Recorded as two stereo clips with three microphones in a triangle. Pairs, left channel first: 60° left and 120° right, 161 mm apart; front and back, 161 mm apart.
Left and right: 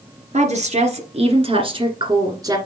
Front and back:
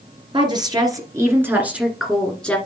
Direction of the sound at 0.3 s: 135° right.